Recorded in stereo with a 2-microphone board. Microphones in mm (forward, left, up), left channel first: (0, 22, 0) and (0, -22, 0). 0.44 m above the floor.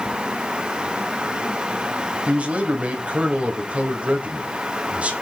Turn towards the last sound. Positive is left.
turn(degrees=-30)  # may be behind; listen again after turning